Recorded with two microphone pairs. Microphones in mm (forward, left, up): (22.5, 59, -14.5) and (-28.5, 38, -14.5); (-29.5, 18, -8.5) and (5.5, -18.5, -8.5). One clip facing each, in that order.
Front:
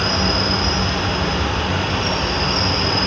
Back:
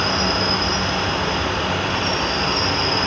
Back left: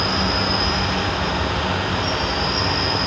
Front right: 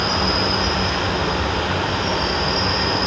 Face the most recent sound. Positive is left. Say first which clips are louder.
# even, front right 1 dB
turn(degrees=-80)